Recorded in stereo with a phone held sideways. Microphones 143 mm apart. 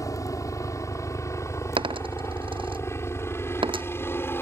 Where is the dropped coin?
35° right (ahead or behind).